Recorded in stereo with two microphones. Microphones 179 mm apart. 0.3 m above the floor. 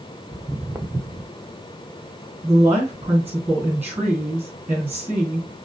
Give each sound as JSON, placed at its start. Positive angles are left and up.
{"t": 0.3, "sound": "footsteps", "side_deg": -15, "distance_m": 0.6}
{"t": 2.4, "sound": "a woman speaking", "side_deg": -15, "distance_m": 3.5}